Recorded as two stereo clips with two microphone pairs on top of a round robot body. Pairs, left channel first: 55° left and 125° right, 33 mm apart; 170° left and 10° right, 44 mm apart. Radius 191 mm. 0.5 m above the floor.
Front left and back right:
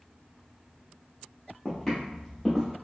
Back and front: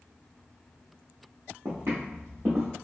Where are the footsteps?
25° right, 0.6 m; by 2.7 s 40° right, 1.1 m.